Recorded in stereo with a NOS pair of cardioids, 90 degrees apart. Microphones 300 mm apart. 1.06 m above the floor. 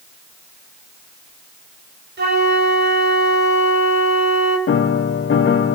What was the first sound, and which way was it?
A flute, 35° right.